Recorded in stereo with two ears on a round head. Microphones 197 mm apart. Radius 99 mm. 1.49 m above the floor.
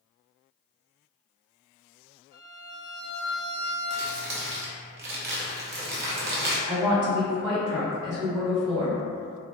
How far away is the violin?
About 1.4 m.